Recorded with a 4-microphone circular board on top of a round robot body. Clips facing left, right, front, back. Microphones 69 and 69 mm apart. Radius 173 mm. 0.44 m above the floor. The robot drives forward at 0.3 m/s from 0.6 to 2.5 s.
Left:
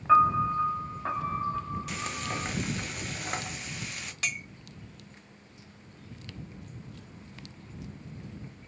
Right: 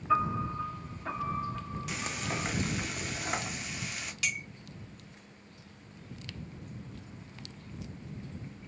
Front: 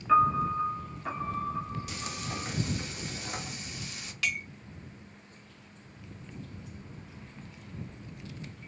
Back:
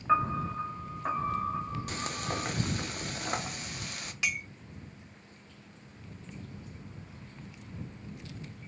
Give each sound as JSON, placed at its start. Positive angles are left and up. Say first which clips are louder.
{"t": 0.1, "sound": "a piano", "louder": "left 8 dB, front 4 dB", "azimuth_deg": 115, "distance_m": 0.6}
{"t": 1.9, "sound": "frying", "louder": "left 1 dB, back 3 dB", "azimuth_deg": -175, "distance_m": 0.6}
{"t": 4.2, "sound": "a clink", "louder": "left 1 dB, front 1 dB", "azimuth_deg": 115, "distance_m": 0.6}